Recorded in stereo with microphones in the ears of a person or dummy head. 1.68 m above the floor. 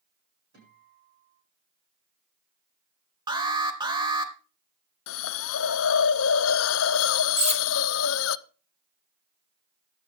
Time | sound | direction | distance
0.5 | a guitar | 60° right (ahead or behind) | 8 m
3.3 | an alarm | 25° right (ahead or behind) | 1.9 m
5.1 | a hiss | 75° left (ahead or behind) | 0.7 m
7.4 | cutlery clinking | 35° right (ahead or behind) | 3.5 m